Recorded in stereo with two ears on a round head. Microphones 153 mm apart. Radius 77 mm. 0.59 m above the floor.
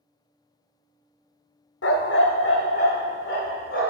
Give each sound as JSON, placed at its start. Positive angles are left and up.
{"t": 1.8, "sound": "a dog barking", "side_deg": 90, "distance_m": 0.6}